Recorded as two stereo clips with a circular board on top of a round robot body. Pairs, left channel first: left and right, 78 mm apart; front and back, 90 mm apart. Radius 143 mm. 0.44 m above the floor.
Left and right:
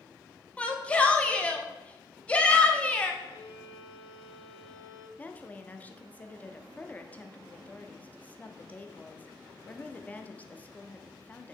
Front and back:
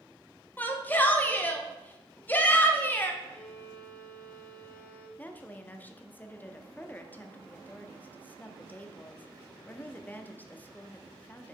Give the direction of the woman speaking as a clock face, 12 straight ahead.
11 o'clock.